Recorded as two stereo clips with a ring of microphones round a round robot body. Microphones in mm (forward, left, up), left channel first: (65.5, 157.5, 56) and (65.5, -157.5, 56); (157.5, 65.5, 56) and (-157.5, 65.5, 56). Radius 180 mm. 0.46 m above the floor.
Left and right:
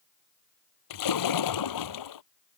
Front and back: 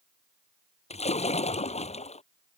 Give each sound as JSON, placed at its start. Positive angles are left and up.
{"t": 0.9, "sound": "a splash", "azimuth_deg": 70}